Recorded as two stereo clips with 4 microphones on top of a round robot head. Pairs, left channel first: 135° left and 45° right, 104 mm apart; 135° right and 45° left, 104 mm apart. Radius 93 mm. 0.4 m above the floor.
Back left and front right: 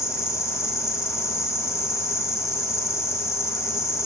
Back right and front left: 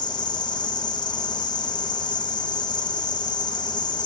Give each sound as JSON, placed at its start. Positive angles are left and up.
{"t": 0.0, "sound": "an insect", "azimuth_deg": -165, "distance_m": 1.8}